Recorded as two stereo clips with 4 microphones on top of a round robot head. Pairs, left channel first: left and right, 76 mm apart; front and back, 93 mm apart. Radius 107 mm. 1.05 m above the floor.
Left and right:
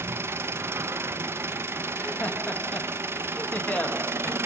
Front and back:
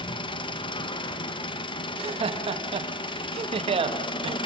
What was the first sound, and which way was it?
An engine running, 30° right.